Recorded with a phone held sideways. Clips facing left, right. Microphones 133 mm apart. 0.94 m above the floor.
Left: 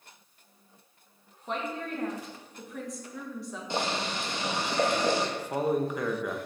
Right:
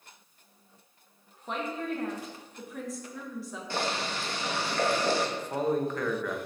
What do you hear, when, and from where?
1.5 s a woman speaking: centre (ahead or behind), 1.2 m
3.7 s boiling: 20° left (ahead or behind), 0.9 m
5.4 s a man speaking: 10° left (ahead or behind), 0.7 m